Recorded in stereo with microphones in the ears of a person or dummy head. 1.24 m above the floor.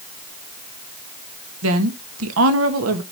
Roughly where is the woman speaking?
Right.